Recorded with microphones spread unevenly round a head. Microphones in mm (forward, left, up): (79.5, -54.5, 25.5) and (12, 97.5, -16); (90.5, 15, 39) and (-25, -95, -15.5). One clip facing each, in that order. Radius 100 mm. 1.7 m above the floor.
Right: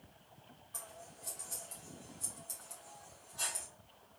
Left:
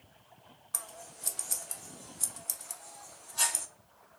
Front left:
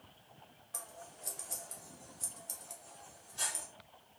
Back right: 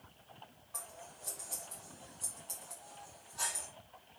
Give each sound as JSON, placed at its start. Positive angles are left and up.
{"t": 0.7, "sound": "scissors", "azimuth_deg": 100, "distance_m": 0.5}